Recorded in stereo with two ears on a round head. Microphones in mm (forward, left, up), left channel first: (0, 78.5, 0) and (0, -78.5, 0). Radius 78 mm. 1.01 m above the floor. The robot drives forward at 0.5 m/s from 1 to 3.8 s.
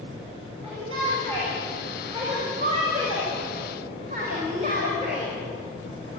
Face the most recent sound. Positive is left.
turn(degrees=-45)  # may be behind; listen again after turning